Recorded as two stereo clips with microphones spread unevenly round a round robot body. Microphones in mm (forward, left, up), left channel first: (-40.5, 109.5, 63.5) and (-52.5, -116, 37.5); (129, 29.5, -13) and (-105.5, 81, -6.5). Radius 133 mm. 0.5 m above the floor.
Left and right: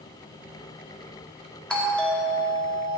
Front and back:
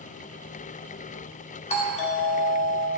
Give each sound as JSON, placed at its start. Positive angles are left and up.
{"t": 1.7, "sound": "a doorbell", "azimuth_deg": -5, "distance_m": 2.0}